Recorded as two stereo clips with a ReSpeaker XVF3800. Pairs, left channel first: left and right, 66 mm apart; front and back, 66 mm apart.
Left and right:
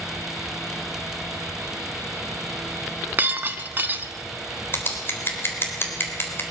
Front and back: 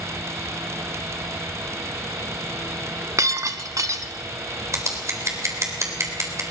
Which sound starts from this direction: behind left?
Scissors, at 4.7 s.